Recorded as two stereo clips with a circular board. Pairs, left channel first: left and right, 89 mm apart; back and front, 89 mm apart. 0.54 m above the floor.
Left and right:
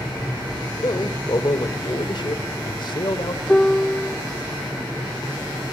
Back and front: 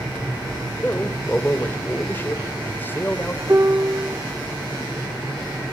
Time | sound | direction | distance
0.8 | a man speaking | 115° left | 1.6 m
3.5 | a piano | 20° left | 0.6 m